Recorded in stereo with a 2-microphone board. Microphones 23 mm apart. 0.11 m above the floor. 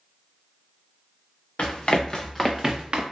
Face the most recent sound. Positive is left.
turn(degrees=-50)  # may be behind; listen again after turning